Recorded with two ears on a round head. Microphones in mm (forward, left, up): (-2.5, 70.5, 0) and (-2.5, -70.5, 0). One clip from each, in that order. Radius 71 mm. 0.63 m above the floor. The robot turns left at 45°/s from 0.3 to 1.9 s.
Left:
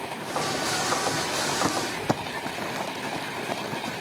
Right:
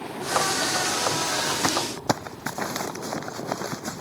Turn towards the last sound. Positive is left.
turn(degrees=-55)  # may be behind; listen again after turning